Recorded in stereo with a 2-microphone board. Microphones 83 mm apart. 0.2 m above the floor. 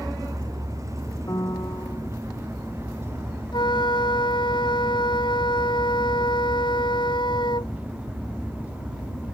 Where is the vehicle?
40° right (ahead or behind); by 9.3 s 15° right (ahead or behind).